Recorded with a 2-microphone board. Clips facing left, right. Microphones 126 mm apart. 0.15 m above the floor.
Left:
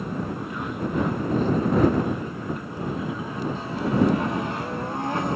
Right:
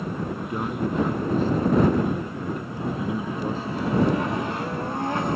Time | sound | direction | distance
0.4 | a man speaking | 35° right (ahead or behind) | ?